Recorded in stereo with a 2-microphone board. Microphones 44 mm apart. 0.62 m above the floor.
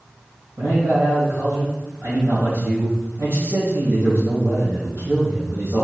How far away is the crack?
No crack in this recording.